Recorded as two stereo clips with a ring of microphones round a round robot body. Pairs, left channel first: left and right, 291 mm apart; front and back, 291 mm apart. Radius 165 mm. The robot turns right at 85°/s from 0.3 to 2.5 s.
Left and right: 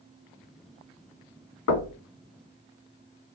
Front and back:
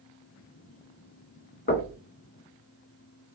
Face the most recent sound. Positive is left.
turn(degrees=135)